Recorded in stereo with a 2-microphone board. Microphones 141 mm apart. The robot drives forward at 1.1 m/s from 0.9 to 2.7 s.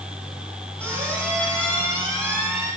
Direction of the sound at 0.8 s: 10° left (ahead or behind).